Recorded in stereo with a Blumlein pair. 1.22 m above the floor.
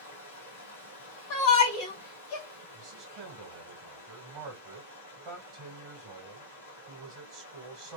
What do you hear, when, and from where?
0.0 s running water: 70° left, 1.4 m
1.3 s a shout: 45° left, 2 m
2.7 s a man speaking: 35° right, 2 m